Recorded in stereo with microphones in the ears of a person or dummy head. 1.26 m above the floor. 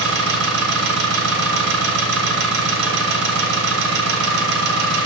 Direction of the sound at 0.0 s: 70° right (ahead or behind).